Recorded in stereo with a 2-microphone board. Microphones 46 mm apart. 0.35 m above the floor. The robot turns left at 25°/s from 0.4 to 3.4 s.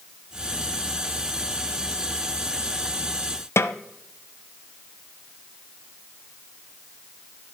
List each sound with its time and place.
3.6 s a snare drum: 70° left (ahead or behind), 0.7 m